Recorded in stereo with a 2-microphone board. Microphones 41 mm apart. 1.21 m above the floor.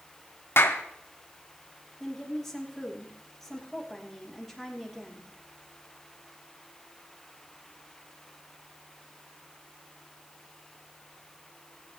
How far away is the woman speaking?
About 2.5 m.